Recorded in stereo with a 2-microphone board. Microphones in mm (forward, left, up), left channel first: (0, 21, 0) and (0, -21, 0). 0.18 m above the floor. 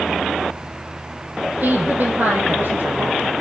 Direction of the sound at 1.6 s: 45° right (ahead or behind).